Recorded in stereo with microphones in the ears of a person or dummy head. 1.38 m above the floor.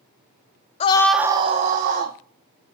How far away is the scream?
About 0.6 m.